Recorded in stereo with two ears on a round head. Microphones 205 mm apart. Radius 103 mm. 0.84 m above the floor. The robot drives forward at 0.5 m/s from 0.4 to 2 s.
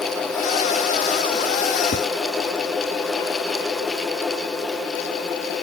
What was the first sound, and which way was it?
Tapping, 25° left (ahead or behind).